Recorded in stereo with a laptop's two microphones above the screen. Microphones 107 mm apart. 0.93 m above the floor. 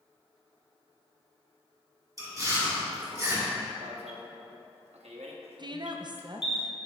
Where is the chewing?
35° right (ahead or behind), 1.9 m.